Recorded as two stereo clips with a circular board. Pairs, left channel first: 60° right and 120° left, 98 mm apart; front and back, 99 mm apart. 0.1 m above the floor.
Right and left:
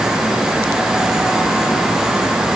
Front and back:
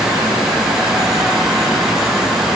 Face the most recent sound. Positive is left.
No sound to turn to.